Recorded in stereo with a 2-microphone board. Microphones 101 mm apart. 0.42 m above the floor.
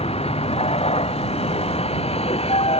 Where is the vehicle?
80° left.